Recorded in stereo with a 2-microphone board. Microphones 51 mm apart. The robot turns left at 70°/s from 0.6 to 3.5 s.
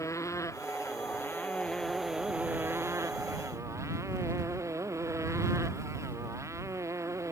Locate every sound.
0.0 s a motorcycle: 95° left; by 7.3 s 105° right